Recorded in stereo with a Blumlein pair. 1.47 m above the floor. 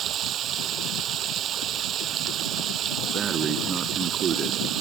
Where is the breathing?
25° right.